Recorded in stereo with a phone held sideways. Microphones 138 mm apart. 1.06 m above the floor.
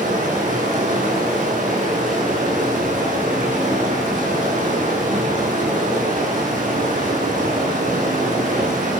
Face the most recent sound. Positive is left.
turn(degrees=-75)  # may be behind; listen again after turning